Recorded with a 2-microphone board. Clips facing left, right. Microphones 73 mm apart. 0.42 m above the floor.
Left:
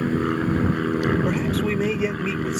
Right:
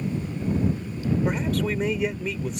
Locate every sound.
0.0 s an aircraft: 75° left (ahead or behind)
1.2 s a man speaking: 5° left (ahead or behind)